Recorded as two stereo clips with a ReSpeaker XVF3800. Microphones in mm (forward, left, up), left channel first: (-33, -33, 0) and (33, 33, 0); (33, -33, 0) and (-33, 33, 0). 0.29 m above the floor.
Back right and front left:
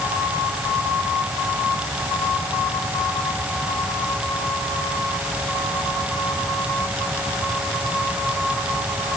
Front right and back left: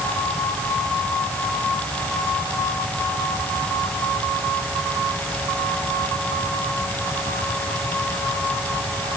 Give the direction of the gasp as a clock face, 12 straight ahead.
No gasp in this recording.